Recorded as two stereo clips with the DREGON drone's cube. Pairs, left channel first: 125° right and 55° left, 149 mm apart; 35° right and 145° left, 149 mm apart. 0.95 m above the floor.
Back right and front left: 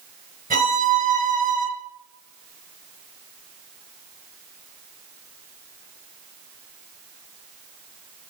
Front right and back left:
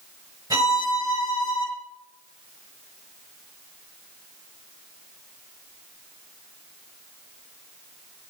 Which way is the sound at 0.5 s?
80° left.